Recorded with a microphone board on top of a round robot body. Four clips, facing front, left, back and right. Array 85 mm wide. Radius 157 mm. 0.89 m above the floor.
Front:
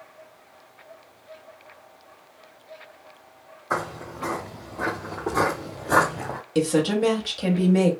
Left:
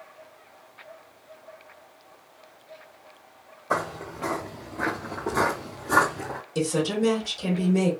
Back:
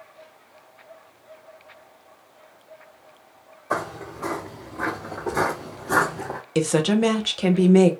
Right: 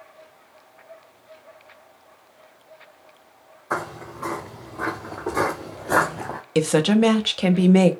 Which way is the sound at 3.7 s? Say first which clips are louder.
Even, back 1 dB; 125° left.